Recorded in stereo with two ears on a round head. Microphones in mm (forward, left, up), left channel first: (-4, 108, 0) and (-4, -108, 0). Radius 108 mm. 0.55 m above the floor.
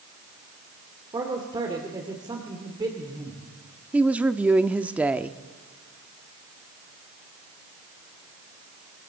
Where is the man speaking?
20° right (ahead or behind), 2 m.